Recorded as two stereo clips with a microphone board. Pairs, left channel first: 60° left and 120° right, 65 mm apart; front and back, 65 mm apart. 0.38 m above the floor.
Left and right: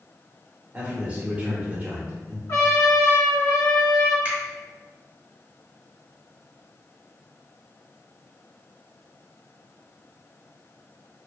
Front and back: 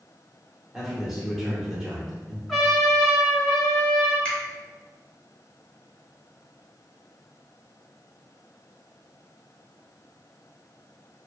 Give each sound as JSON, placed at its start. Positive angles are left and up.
{"t": 0.7, "sound": "a man speaking", "azimuth_deg": -100, "distance_m": 0.9}
{"t": 2.5, "sound": "a trumpet", "azimuth_deg": 90, "distance_m": 1.9}
{"t": 4.2, "sound": "a finger snap", "azimuth_deg": -65, "distance_m": 0.8}